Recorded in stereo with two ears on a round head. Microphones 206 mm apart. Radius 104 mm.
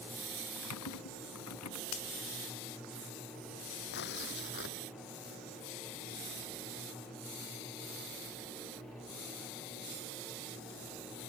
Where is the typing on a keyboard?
75° left (ahead or behind).